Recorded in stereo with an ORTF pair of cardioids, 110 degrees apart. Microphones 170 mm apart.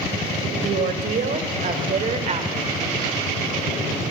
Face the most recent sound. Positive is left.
turn(degrees=-35)